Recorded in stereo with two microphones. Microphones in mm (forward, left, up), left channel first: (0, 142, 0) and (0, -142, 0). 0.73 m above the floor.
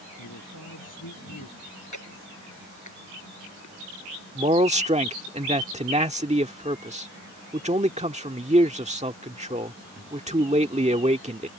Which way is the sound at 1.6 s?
70° left (ahead or behind).